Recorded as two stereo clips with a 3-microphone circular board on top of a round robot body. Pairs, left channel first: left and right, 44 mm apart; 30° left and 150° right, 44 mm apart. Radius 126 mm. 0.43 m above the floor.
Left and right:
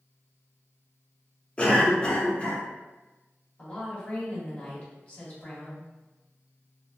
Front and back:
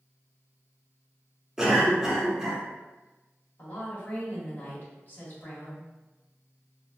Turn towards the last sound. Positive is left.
turn(degrees=45)